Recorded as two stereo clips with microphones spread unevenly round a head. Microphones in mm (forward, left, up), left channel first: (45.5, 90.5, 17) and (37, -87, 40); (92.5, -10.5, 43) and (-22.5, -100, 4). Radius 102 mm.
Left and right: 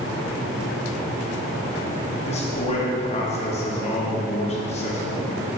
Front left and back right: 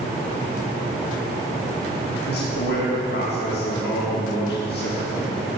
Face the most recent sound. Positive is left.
turn(degrees=35)